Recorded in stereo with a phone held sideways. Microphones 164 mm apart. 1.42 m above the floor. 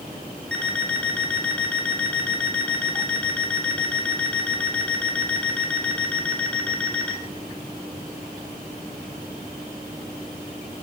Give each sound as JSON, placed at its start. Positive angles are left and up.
{"t": 0.5, "sound": "an alarm clock", "side_deg": 10, "distance_m": 2.0}